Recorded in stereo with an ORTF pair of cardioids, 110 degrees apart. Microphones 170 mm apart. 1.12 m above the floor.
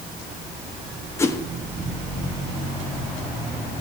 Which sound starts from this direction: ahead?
A whoosh, at 1.2 s.